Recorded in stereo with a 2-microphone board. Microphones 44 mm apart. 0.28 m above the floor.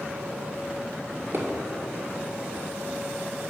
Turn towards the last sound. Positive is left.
turn(degrees=-60)  # may be behind; listen again after turning